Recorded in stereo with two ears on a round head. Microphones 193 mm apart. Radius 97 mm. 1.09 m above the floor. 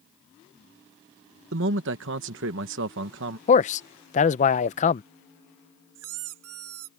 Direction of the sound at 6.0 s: 80° right.